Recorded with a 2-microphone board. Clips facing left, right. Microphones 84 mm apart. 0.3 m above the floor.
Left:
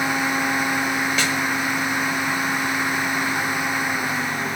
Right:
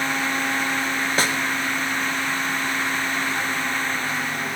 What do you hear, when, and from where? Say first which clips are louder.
1.2 s a snare drum: even; 40° right (ahead or behind), 1.0 m